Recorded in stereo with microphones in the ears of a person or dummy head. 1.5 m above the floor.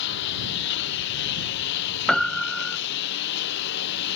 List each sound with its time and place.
0.0 s a lawn mower: 60° left (ahead or behind)
2.1 s a piano: centre (ahead or behind)